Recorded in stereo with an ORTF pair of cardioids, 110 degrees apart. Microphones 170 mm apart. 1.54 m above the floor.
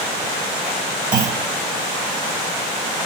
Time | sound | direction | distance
1.1 | a clunk | 50° right | 1.4 m